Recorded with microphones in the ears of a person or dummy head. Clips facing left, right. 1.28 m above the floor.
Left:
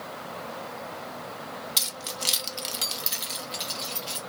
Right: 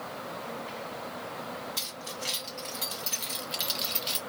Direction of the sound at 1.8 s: 80° left.